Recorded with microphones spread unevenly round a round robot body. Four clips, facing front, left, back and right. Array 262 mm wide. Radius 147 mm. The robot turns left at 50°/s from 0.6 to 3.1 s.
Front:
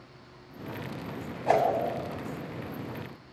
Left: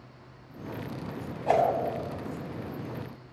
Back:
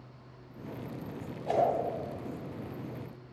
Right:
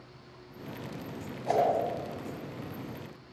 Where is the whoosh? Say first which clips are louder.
Left 3 dB, front 5 dB; 30° left, 8.5 m; by 1.6 s 20° left, 8.5 m.